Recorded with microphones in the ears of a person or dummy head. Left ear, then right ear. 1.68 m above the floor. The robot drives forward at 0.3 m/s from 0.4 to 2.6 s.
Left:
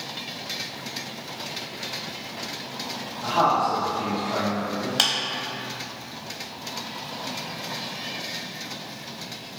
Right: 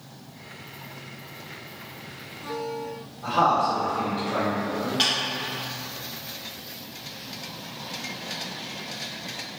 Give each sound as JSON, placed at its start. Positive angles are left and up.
{"t": 3.2, "sound": "a man speaking", "side_deg": 20, "distance_m": 0.8}
{"t": 5.0, "sound": "a clap", "side_deg": 25, "distance_m": 0.6}